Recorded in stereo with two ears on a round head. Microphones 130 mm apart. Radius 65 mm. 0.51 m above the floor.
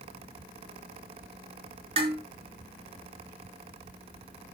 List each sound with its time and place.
2.0 s dishes clattering: 40° right (ahead or behind), 4.5 m